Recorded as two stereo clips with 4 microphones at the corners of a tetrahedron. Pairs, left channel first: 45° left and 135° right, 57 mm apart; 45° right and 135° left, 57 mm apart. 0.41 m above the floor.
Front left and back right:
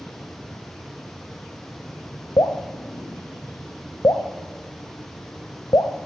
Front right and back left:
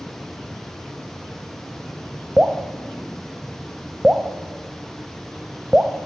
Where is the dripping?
60° left, 1.0 m.